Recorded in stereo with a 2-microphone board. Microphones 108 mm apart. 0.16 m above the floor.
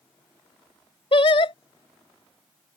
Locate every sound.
1.1 s singing: 55° left (ahead or behind)